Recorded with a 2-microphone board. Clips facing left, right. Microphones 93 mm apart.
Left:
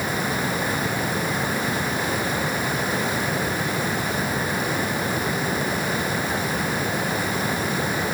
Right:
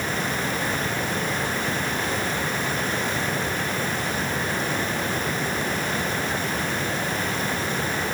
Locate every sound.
Only background noise.